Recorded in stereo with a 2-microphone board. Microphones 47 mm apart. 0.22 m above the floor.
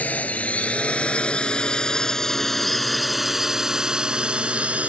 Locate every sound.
0.0 s a drone: 35° left (ahead or behind); by 4.9 s 30° right (ahead or behind)